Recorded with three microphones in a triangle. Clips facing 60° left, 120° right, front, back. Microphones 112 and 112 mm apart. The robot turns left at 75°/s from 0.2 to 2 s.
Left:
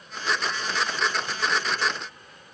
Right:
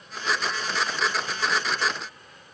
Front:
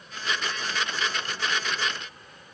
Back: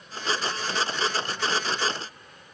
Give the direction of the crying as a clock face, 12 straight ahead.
No crying in this recording.